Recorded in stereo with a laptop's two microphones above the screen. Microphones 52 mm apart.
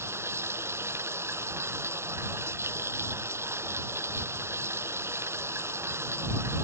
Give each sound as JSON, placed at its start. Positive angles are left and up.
{"t": 0.0, "sound": "running water", "side_deg": -55}